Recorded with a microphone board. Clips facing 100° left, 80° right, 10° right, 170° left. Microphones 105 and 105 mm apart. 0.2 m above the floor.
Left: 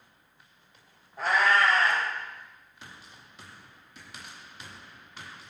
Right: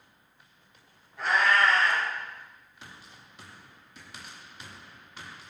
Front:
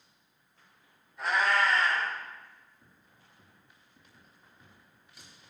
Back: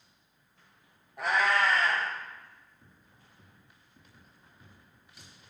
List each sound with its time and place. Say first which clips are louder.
1.2 s a cat meowing: left 1 dB, even; 145° left, 1.1 m